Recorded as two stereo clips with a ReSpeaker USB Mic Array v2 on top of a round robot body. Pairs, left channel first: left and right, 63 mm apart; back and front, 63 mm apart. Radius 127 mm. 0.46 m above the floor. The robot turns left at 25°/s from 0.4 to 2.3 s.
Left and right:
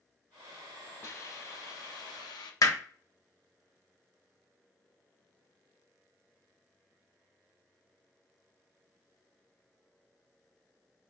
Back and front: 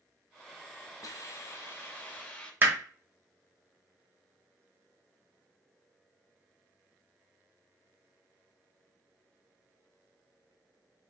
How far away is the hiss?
About 0.7 m.